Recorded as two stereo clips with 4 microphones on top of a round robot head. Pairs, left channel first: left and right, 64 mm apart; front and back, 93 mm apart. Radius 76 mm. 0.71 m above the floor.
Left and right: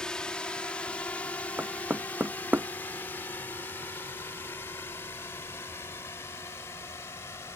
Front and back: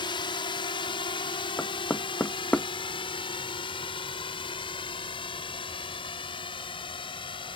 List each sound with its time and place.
0.0 s a drone: 10° left; by 7.6 s 30° left
1.6 s knocking: 65° right